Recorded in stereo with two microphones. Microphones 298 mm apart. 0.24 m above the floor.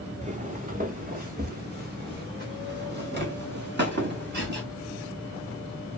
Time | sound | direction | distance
0.2 | footsteps | 25° right (ahead or behind) | 0.8 m